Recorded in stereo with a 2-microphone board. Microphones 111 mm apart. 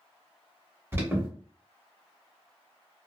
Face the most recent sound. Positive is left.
turn(degrees=-25)  # may be behind; listen again after turning